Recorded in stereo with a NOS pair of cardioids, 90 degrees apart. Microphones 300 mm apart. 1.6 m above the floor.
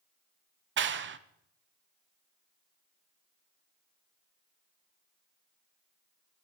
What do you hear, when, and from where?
0.8 s a clap: 40° right, 0.8 m